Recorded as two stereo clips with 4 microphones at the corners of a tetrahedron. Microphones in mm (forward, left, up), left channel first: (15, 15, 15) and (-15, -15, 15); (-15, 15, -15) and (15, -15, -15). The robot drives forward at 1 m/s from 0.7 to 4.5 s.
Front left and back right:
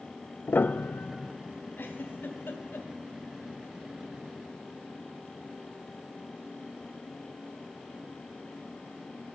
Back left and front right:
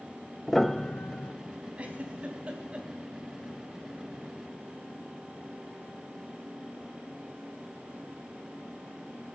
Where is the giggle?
15° left, 3.5 m; by 2.9 s 20° left, 2 m.